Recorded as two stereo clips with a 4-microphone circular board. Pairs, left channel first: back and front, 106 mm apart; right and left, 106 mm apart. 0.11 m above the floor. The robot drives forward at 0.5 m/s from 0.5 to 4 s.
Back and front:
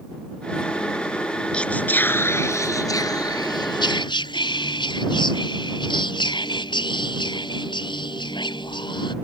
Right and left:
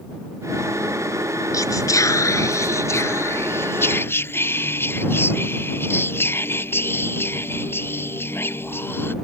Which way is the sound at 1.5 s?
105° right.